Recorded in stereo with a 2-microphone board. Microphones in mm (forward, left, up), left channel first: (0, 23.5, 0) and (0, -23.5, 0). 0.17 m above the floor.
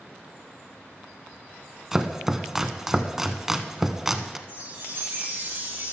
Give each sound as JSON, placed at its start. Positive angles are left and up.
{"t": 1.9, "sound": "chopping", "side_deg": -5, "distance_m": 0.7}
{"t": 4.5, "sound": "a chime", "side_deg": -50, "distance_m": 4.5}